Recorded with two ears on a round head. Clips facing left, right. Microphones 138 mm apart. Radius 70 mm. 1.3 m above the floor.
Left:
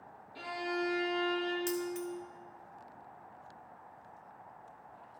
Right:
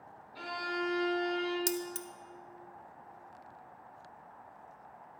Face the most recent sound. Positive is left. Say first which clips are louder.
# left 2 dB
turn(degrees=-45)  # may be behind; listen again after turning